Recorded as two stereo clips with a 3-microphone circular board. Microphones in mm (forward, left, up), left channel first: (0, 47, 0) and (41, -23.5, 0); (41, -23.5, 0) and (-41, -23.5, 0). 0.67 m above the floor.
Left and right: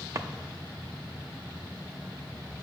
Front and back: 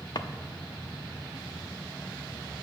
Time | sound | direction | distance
0.1 | a drawer | 15° right | 0.5 m